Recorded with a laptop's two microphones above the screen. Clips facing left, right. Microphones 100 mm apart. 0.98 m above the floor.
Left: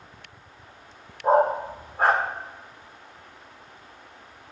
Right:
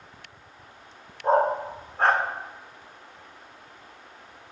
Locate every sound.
1.2 s a dog barking: 5° left (ahead or behind), 0.6 m